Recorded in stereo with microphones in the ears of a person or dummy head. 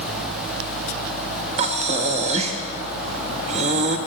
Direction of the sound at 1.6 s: 30° right (ahead or behind).